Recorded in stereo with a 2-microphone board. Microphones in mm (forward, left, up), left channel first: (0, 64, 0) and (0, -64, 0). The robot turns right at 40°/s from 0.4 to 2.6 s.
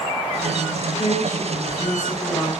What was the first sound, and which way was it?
A woman speaking, 95° left.